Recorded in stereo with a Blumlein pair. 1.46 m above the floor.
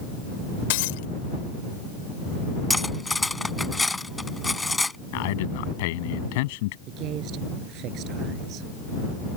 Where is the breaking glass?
50° left.